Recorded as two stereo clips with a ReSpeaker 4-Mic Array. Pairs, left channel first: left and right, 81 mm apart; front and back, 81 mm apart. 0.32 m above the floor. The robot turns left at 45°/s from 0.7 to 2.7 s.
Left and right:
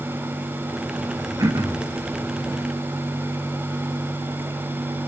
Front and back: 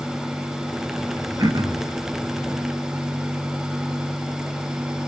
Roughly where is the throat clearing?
Behind right.